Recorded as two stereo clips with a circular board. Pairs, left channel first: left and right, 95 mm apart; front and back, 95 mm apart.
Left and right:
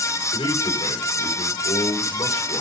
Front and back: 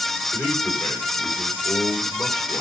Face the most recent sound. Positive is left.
turn(degrees=80)